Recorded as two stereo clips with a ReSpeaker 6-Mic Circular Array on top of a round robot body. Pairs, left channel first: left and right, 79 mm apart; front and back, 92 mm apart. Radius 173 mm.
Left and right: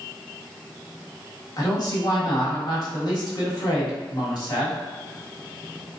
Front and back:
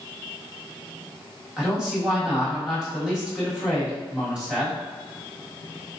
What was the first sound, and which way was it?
A man speaking, 100° left.